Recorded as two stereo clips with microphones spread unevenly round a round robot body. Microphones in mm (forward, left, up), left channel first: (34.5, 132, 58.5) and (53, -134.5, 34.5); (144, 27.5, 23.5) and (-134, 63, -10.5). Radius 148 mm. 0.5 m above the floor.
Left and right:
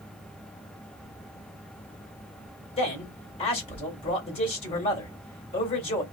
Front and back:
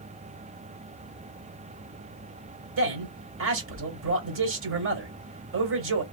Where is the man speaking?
165° left, 1.7 m.